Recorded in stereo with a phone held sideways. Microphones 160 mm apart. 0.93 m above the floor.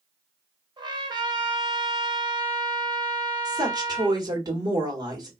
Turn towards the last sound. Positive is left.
turn(degrees=-25)  # may be behind; listen again after turning